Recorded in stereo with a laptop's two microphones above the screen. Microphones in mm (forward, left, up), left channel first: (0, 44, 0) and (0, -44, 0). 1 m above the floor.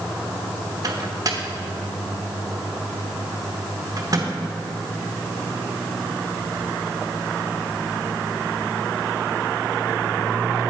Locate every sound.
0.8 s a microwave: 40° right (ahead or behind), 0.9 m